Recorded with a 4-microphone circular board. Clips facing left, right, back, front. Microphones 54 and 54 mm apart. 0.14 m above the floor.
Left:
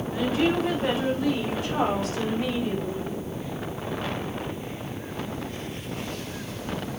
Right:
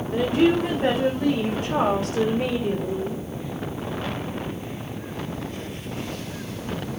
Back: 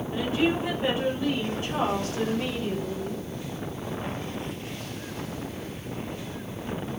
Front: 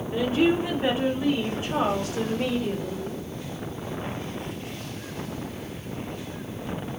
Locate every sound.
0.1 s a woman speaking: 70° right, 9 m; by 3.2 s 80° right, 7 m